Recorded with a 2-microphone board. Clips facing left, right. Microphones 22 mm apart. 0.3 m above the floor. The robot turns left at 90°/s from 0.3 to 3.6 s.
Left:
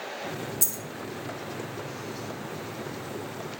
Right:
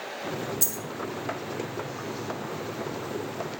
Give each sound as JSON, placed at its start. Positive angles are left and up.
{"t": 0.6, "sound": "a dropped coin", "side_deg": -25, "distance_m": 0.8}